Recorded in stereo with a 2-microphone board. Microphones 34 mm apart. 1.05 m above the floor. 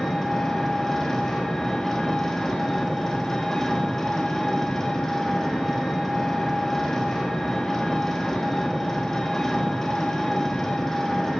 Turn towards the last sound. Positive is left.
turn(degrees=10)  # may be behind; listen again after turning